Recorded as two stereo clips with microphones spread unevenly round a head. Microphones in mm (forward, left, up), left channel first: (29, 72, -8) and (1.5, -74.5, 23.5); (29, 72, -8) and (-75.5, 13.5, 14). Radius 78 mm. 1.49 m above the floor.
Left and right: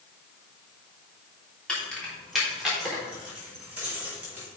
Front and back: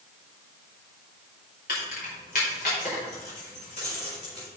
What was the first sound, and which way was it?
Keys jangling, 5° right.